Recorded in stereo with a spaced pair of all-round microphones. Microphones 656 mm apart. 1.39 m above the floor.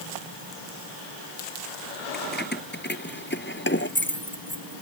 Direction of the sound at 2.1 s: 15° left (ahead or behind).